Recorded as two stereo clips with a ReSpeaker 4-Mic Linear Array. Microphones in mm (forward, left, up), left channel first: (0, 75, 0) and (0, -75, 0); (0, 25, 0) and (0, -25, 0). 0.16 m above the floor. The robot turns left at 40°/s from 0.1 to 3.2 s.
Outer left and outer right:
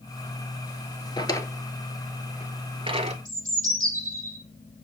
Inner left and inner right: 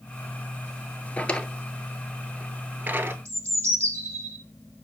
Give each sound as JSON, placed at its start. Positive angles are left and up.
{"t": 1.2, "sound": "a drawer", "side_deg": 30, "distance_m": 0.7}
{"t": 3.2, "sound": "a bird", "side_deg": -60, "distance_m": 2.0}